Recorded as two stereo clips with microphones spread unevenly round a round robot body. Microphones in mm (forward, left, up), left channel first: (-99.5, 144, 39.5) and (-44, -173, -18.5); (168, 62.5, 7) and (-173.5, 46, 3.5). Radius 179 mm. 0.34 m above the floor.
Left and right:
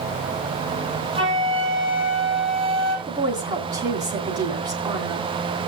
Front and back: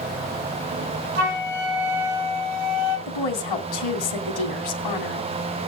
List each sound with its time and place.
1.1 s a flute: 155° right, 3.5 m
3.1 s a woman speaking: 5° right, 2.5 m